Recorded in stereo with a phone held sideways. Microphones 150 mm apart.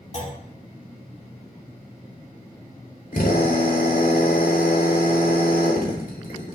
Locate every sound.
0.1 s a clunk: 50° left (ahead or behind), 2.5 m
3.1 s a drill: 75° left (ahead or behind), 3.5 m